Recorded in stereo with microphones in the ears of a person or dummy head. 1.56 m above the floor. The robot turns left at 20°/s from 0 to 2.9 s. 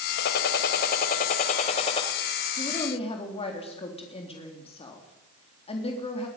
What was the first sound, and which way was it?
A gunshot, 70° left.